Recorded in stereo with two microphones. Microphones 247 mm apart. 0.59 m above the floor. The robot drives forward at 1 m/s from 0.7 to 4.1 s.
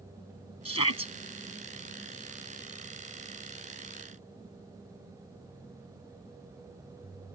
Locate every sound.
0.7 s a shout: 70° left (ahead or behind); by 1.1 s 65° left (ahead or behind)